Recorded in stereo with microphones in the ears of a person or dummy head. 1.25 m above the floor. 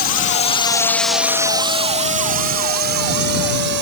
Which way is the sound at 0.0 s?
45° left (ahead or behind).